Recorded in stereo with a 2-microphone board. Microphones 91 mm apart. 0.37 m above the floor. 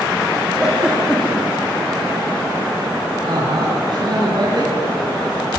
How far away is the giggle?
About 5 m.